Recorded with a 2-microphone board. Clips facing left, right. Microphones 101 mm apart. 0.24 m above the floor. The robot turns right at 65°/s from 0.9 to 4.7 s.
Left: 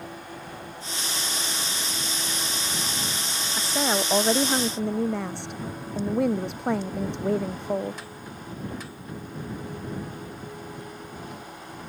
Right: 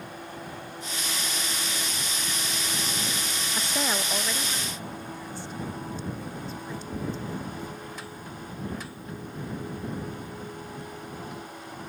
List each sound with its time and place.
3.6 s a woman speaking: 5° right; by 8.0 s 70° left